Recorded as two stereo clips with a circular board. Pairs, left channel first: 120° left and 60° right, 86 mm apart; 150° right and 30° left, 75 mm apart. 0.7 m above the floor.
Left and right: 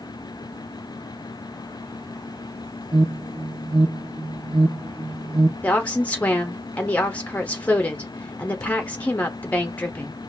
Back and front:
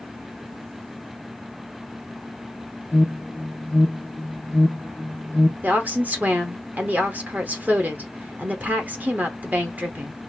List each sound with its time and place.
2.9 s an alarm: 80° right, 0.7 m
5.6 s a woman speaking: 70° left, 0.9 m